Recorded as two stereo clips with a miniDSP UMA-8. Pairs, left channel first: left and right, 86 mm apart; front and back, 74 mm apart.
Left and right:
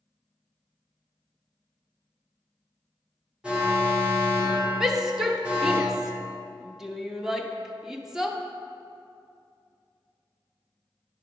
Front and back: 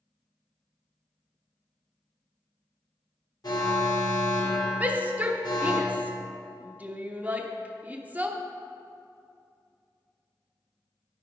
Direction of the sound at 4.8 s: 165° right.